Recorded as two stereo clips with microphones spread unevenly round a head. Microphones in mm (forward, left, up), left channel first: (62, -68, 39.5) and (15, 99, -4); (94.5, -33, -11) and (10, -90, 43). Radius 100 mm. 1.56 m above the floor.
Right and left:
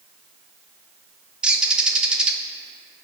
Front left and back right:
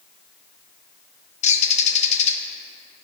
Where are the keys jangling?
I don't hear keys jangling.